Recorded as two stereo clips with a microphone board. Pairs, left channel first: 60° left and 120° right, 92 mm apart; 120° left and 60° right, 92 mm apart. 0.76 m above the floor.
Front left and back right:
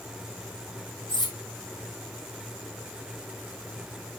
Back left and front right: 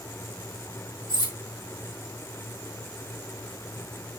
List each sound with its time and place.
1.1 s cutlery clinking: 85° left, 3.5 m